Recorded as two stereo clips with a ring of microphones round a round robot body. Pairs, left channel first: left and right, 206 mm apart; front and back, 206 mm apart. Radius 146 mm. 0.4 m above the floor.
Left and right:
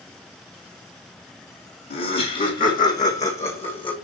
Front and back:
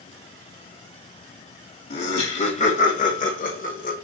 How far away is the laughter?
About 2.5 m.